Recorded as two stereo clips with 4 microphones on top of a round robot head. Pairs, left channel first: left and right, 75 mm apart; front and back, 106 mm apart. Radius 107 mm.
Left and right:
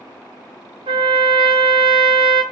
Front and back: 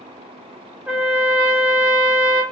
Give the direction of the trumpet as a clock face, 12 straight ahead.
3 o'clock.